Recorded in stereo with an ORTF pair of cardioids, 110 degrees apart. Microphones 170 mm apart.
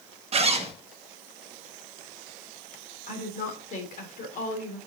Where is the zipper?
35° right, 1.3 m.